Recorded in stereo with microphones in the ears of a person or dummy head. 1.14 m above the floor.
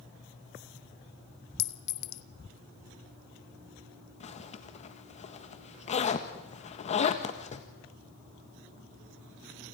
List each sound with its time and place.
1.6 s a clink: 60° left (ahead or behind), 0.9 m
4.2 s a zipper: 35° left (ahead or behind), 1.6 m